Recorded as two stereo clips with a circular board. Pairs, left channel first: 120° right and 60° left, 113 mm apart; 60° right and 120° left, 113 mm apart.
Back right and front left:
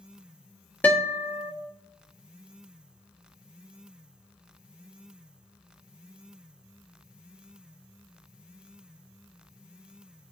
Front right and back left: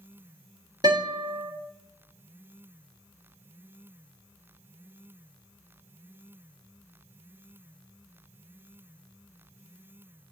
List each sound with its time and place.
0.8 s a guitar: 170° left, 1.1 m